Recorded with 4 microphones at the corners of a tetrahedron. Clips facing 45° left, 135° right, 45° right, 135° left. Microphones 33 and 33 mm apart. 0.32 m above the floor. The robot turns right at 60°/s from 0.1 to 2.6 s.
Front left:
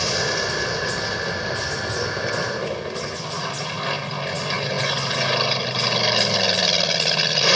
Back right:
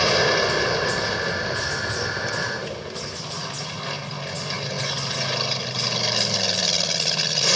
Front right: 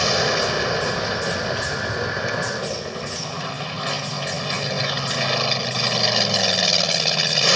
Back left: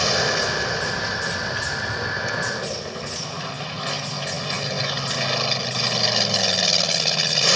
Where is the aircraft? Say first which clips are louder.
Back right 4 dB, front right 1 dB; 125° right; by 7.5 s 25° left.